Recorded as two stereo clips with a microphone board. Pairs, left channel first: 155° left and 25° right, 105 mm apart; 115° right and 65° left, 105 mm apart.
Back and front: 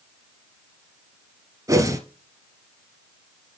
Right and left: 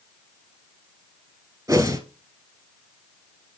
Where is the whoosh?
20° left, 1.1 m.